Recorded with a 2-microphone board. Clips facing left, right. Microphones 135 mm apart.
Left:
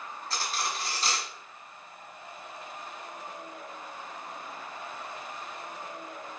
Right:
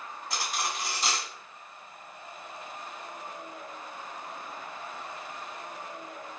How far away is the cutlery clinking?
About 1.0 m.